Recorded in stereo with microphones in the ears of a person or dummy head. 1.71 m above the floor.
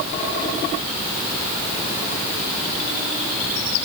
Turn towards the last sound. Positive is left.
No sound to turn to.